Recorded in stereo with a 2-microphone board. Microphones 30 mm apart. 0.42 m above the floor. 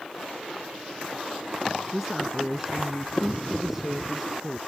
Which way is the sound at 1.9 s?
5° right (ahead or behind).